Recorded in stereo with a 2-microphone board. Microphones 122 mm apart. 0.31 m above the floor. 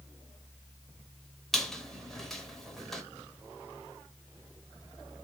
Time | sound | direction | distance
1.5 | a squeak | 5° left (ahead or behind) | 0.6 m